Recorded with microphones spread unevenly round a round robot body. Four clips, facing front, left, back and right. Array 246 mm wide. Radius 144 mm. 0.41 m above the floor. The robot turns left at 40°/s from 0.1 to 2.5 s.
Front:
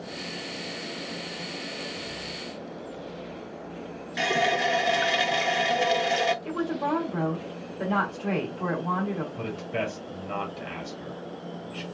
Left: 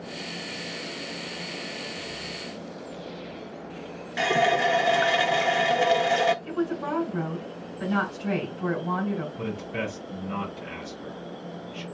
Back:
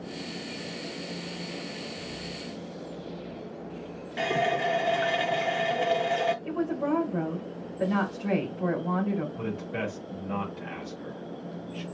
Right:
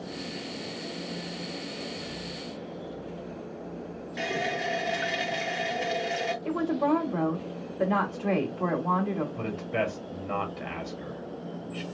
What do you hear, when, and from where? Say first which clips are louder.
4.2 s a running tap: left 9 dB, front 1 dB; 75° left, 0.6 m
6.5 s a woman speaking: right 3 dB, even; 70° right, 2 m
9.4 s a man speaking: right 2 dB, front 2 dB; 65° right, 2.5 m